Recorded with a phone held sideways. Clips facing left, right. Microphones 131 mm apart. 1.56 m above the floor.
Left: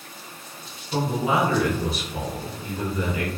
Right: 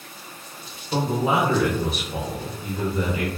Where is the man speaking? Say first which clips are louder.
Right 1 dB; 55° right (ahead or behind), 0.8 m.